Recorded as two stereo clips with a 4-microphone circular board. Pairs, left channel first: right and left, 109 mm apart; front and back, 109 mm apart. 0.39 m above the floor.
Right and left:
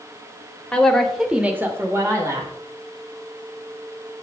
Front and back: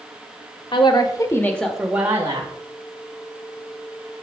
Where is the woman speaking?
10° right, 1.1 m; by 2.5 s 135° left, 1.1 m.